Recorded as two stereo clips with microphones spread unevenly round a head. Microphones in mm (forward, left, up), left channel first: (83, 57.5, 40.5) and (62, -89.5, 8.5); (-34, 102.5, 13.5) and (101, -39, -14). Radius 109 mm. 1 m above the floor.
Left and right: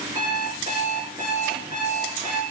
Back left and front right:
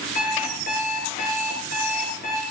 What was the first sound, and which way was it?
An alarm clock, 175° right.